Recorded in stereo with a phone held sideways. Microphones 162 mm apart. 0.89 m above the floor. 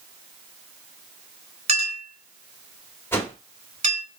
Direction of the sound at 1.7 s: 40° right (ahead or behind).